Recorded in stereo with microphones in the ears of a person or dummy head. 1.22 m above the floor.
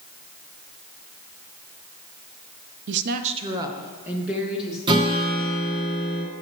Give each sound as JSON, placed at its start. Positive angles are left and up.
{"t": 2.9, "sound": "a woman speaking", "side_deg": -55, "distance_m": 0.6}
{"t": 4.9, "sound": "a guitar", "side_deg": -25, "distance_m": 2.0}